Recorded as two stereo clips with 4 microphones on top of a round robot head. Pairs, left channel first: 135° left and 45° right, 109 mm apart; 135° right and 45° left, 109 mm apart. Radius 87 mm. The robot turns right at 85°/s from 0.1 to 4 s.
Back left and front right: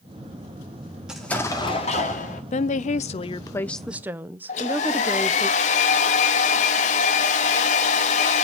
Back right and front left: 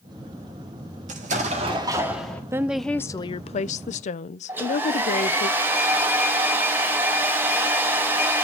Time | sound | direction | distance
1.1 | an explosion | 35° left | 1.8 m
2.5 | a woman speaking | 110° left | 0.6 m
4.5 | a hair dryer | 120° left | 0.9 m